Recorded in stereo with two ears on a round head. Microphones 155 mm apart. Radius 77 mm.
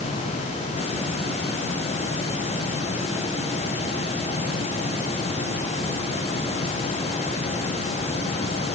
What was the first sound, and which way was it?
Only background noise.